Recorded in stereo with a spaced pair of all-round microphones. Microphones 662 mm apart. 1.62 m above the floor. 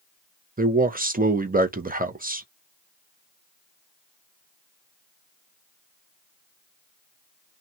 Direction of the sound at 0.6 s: 15° right (ahead or behind).